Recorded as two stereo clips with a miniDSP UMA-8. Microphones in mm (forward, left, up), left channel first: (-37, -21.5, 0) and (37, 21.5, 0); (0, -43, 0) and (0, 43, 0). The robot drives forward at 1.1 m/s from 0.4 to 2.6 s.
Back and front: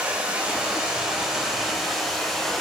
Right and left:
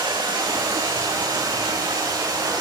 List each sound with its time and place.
0.0 s running water: 105° left, 6.5 m; by 2.6 s 120° left, 7.5 m